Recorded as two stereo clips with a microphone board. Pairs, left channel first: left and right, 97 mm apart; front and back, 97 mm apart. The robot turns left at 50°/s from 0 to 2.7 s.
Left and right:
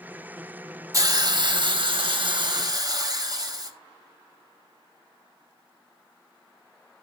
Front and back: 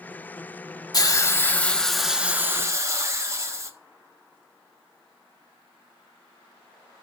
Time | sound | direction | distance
0.9 | a hiss | 40° right | 1.4 m